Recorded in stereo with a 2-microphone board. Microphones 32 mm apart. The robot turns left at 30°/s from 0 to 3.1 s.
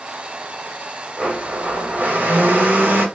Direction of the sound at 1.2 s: 45° right.